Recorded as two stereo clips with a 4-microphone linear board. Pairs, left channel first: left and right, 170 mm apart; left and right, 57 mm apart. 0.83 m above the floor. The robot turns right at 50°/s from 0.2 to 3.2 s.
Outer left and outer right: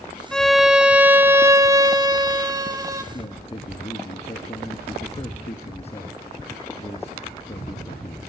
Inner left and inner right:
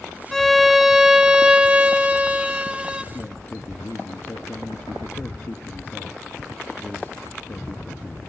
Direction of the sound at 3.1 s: 40° left (ahead or behind).